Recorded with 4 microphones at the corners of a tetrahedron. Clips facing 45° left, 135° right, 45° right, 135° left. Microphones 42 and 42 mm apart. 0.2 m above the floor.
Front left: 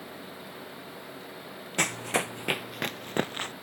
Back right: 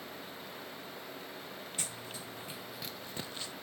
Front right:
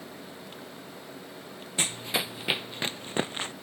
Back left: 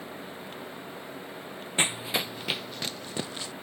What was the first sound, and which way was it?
Running footsteps, 75° left.